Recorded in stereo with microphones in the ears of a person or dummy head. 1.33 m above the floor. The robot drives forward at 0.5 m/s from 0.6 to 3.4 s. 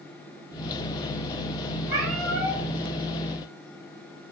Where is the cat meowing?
60° right (ahead or behind), 2.5 m.